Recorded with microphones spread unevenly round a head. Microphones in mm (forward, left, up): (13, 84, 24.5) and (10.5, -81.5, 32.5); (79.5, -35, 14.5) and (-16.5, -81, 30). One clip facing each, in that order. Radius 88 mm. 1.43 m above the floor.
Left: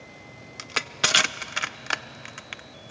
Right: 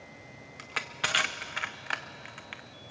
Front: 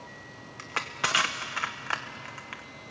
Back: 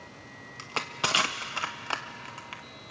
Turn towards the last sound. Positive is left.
turn(degrees=135)